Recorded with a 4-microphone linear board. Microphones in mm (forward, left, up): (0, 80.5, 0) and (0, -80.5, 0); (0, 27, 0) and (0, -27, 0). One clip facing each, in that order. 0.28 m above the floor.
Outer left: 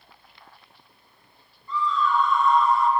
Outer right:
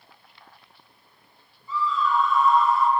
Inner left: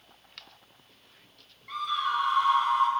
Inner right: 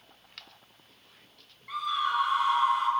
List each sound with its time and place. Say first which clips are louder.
1.7 s a scream: even, even; 5° right (ahead or behind), 1.0 m